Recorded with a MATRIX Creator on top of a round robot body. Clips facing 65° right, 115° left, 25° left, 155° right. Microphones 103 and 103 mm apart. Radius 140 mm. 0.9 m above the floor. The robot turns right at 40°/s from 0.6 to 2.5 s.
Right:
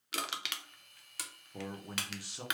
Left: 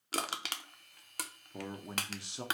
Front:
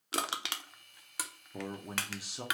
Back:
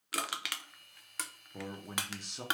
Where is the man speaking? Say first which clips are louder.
Left 1 dB, front 2 dB; 65° left, 0.6 m; by 2.5 s 100° left, 0.6 m.